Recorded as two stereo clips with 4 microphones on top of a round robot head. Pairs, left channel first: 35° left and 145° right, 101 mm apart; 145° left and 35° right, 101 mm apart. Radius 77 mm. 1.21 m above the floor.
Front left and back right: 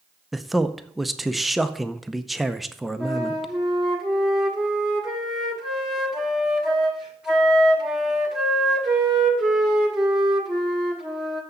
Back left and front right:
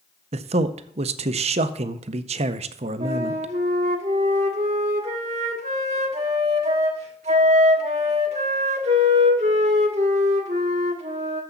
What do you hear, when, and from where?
0.3 s a man speaking: 55° right, 0.6 m
3.0 s a flute: 60° right, 1.3 m